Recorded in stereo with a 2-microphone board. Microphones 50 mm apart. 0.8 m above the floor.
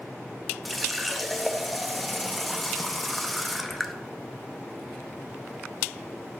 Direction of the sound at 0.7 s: Centre (ahead or behind).